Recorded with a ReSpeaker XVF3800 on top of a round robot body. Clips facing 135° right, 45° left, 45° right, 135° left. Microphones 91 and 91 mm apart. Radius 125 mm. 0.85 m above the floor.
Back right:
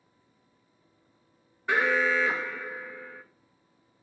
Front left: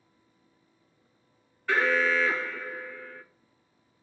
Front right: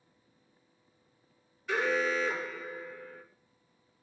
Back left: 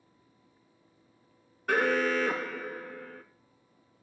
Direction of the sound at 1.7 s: 155° left.